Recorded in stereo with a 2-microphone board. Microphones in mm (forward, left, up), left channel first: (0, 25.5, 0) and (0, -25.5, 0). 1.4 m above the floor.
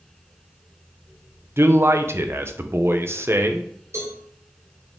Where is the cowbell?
65° right (ahead or behind), 4.5 m.